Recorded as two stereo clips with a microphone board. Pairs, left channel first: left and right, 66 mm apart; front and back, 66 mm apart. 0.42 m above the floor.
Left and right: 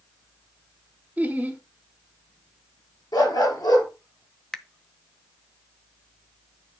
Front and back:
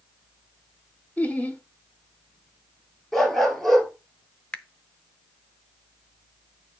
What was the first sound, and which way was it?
Laughter, 45° right.